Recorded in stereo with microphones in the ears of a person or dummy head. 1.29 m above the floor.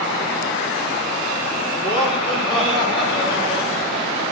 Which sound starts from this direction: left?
Laughter, at 1.8 s.